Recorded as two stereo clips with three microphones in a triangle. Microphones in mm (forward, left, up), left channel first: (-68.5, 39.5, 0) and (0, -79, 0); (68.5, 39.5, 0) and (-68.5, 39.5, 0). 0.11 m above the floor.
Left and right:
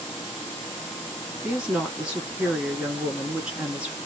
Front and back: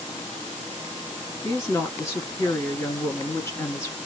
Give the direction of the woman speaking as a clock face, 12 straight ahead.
12 o'clock.